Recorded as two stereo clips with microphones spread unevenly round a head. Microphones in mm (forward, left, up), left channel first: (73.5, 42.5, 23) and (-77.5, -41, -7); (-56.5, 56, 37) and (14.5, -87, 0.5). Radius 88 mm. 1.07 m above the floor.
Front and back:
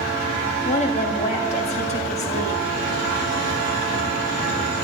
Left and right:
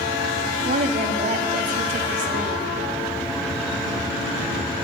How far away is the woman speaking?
About 2.5 m.